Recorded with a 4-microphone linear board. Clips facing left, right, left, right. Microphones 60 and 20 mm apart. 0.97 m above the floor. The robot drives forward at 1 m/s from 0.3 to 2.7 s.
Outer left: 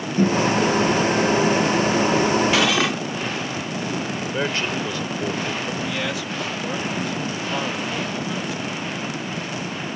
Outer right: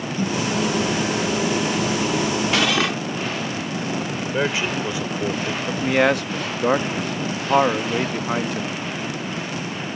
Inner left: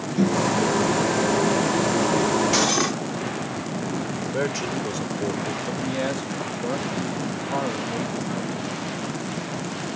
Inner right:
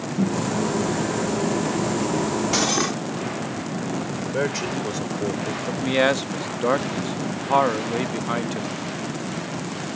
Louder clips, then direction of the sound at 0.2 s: Outer left 5 dB, inner left 3 dB; 45° left (ahead or behind).